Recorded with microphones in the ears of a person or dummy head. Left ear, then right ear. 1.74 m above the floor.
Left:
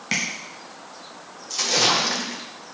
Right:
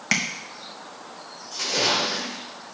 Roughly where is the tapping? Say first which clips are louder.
Right 1 dB; right.